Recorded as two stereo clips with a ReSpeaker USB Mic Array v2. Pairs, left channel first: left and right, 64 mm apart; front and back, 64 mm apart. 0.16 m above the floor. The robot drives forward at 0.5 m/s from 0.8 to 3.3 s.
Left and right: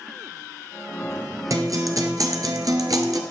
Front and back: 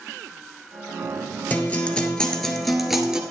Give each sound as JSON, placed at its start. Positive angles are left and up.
{"t": 1.5, "sound": "a guitar", "azimuth_deg": -65, "distance_m": 1.5}